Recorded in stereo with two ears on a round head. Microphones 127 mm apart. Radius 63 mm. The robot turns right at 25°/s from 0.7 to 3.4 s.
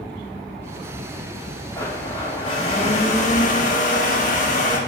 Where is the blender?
20° left, 1.4 m; by 4.8 s 65° left, 1.4 m.